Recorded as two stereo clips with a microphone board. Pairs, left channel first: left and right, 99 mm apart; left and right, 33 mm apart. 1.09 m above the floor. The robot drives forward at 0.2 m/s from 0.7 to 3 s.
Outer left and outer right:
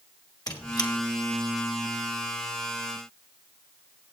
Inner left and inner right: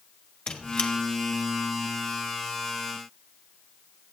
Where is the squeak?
40° left (ahead or behind), 1.1 m.